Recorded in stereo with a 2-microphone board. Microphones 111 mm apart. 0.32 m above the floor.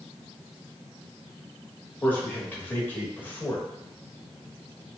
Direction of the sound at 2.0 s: 15° left (ahead or behind).